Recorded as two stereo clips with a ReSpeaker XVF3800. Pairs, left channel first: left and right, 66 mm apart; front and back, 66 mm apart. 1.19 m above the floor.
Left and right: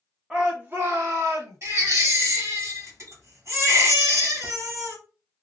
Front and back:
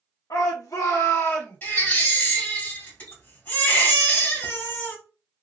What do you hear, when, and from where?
0.3 s a shout: 10° right, 0.8 m; by 1.6 s 60° right, 1.4 m
1.6 s a baby crying: 55° right, 1.6 m